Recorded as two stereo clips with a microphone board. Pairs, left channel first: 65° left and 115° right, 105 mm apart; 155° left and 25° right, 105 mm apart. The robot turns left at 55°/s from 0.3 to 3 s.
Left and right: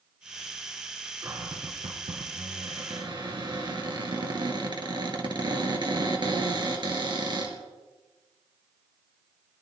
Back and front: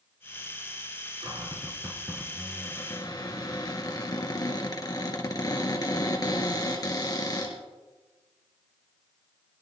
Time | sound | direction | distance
1.2 | a cupboard door | 55° right | 2.5 m